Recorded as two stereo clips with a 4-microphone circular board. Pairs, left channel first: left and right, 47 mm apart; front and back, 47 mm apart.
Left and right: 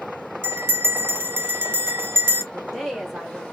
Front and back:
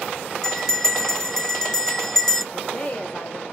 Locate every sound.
0.4 s a bell: 75° right, 0.8 m
2.5 s a woman speaking: straight ahead, 1.1 m